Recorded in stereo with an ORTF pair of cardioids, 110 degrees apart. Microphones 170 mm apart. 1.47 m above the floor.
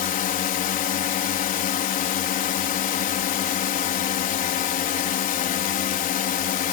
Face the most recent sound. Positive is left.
turn(degrees=60)